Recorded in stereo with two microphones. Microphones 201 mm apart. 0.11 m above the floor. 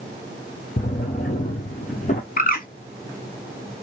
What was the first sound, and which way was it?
A drawer, 40° left (ahead or behind).